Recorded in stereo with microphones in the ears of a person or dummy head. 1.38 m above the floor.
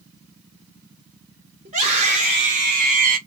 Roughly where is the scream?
Right.